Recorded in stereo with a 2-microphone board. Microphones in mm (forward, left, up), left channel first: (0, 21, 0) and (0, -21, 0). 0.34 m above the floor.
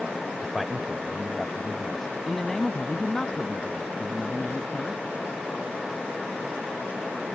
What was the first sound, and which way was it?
A man speaking, 10° right (ahead or behind).